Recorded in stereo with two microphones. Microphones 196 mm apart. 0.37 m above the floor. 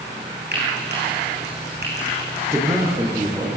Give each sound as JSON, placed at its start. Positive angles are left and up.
{"t": 0.5, "sound": "frying", "side_deg": -60, "distance_m": 8.5}
{"t": 2.5, "sound": "a man speaking", "side_deg": -15, "distance_m": 6.0}